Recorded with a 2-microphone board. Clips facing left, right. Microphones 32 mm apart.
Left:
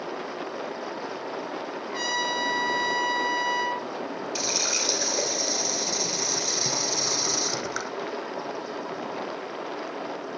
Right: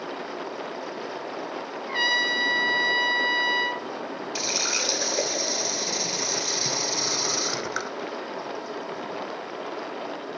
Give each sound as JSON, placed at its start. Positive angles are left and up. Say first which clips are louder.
{"t": 1.9, "sound": "a trumpet", "louder": "right 5 dB", "side_deg": -35, "distance_m": 1.4}
{"t": 4.3, "sound": "a running tap", "louder": "right 2 dB", "side_deg": -10, "distance_m": 1.3}